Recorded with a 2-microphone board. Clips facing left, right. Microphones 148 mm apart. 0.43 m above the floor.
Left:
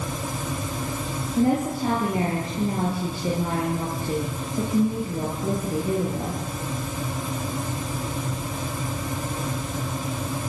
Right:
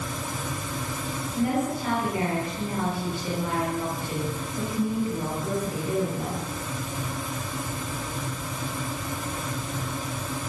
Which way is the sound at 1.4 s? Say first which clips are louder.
Left 4 dB; 30° left (ahead or behind).